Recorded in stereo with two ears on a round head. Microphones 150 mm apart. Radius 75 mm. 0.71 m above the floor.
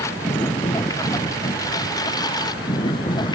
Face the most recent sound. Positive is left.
turn(degrees=25)  # may be behind; listen again after turning